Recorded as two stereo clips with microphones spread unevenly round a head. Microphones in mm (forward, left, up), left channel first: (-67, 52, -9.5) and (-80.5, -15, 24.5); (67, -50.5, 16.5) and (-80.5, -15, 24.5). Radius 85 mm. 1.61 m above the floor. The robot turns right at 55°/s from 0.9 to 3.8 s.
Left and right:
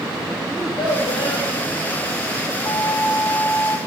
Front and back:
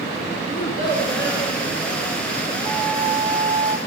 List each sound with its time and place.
0.5 s a child speaking: 35° right, 3.5 m; by 1.5 s 5° right, 3.5 m
2.6 s a flute: 50° left, 1.8 m; by 3.8 s 110° left, 1.8 m